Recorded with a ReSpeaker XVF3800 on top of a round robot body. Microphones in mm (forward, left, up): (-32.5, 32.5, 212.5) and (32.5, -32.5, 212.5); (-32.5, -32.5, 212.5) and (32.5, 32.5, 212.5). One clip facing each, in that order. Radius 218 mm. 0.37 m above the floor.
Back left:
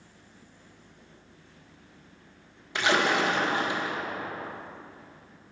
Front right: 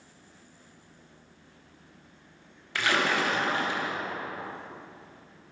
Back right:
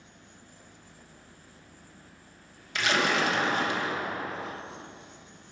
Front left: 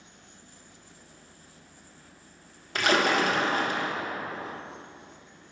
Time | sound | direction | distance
2.8 | a splash | 70° left | 1.7 m